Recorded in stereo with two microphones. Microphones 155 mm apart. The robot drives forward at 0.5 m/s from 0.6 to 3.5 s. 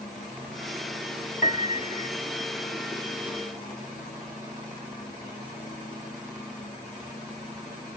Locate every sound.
1.4 s a piano: 55° left (ahead or behind); by 2.1 s 45° left (ahead or behind)